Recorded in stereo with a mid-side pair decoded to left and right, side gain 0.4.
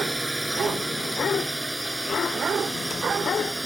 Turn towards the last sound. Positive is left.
turn(degrees=-10)